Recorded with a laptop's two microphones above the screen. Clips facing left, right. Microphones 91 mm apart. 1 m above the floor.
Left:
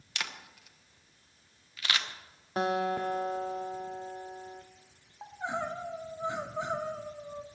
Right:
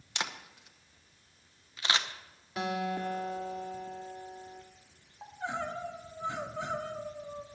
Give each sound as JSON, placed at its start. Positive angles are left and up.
{"t": 0.1, "sound": "a camera shutter", "side_deg": -25, "distance_m": 0.9}
{"t": 2.6, "sound": "a guitar", "side_deg": 40, "distance_m": 0.8}
{"t": 5.2, "sound": "crying", "side_deg": 15, "distance_m": 1.8}